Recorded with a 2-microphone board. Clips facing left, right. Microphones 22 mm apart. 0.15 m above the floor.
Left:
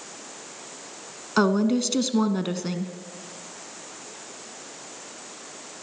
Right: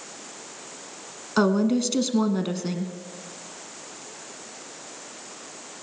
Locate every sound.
1.4 s a woman speaking: 10° left (ahead or behind), 1.1 m